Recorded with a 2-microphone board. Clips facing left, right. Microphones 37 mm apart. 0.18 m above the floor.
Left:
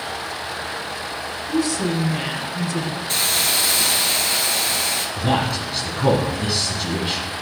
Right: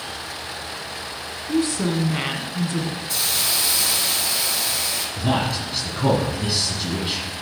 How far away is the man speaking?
About 1.4 m.